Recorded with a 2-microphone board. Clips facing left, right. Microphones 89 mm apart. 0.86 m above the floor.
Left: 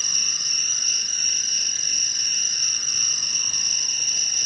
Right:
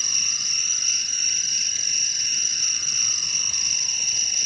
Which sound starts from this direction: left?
An insect, at 0.0 s.